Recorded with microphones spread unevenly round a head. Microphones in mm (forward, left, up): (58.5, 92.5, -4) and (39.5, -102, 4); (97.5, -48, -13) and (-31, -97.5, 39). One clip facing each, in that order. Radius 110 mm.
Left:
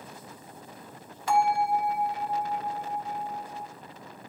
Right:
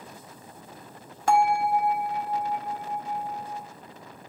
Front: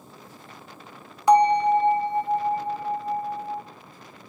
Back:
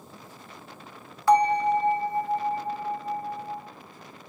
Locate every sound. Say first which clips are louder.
1.3 s a bell: right 2 dB, front 3 dB; 55° right, 1.6 m